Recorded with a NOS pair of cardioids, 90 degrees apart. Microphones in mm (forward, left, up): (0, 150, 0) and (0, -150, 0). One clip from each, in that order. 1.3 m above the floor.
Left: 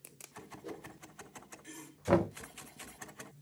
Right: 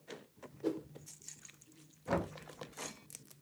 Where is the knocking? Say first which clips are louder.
Left 7 dB; 45° left, 0.7 m.